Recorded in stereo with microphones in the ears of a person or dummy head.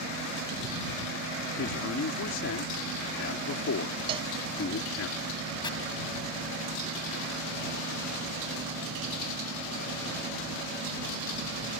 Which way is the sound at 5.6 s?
20° left (ahead or behind).